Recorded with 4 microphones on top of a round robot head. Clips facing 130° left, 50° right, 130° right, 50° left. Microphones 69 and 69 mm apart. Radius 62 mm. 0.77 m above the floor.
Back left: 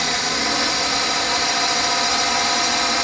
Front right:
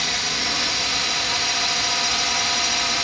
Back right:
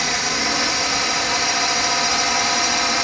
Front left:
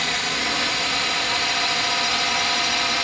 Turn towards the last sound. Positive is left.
turn(degrees=170)